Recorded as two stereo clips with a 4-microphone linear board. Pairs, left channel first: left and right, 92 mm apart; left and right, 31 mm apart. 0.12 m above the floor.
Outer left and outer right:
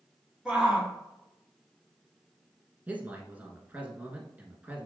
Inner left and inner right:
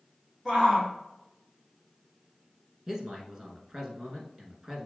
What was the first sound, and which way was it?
A shout, 5° right (ahead or behind).